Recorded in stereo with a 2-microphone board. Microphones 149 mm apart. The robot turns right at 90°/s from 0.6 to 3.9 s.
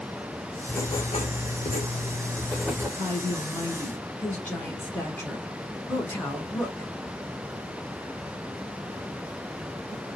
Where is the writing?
10° left, 0.7 m; by 2.9 s 155° right, 0.7 m.